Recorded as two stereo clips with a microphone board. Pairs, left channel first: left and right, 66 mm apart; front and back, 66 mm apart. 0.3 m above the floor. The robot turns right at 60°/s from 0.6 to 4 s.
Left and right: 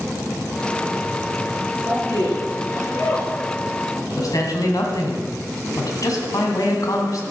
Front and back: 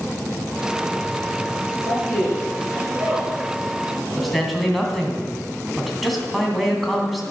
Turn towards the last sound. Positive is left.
turn(degrees=90)